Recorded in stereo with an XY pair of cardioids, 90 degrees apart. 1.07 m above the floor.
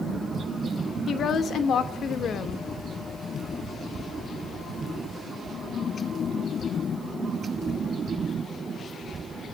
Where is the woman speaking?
60° left, 2.5 m.